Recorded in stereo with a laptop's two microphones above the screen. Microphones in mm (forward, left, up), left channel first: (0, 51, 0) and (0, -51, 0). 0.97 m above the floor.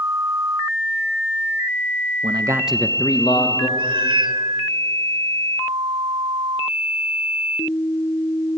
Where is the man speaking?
55° right (ahead or behind), 0.8 m; by 3.7 s 55° left (ahead or behind), 1.5 m.